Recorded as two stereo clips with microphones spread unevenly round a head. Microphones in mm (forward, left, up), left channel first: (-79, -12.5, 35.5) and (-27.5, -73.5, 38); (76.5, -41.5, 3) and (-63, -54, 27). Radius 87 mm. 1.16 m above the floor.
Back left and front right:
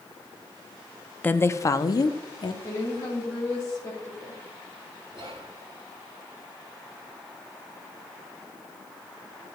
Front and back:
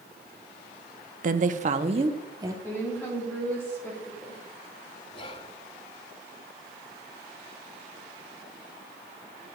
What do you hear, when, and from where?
1.2 s a woman speaking: 170° right, 0.6 m; by 2.5 s 110° left, 0.9 m
2.6 s a woman speaking: 75° left, 2 m
5.1 s whispering: 40° right, 3.5 m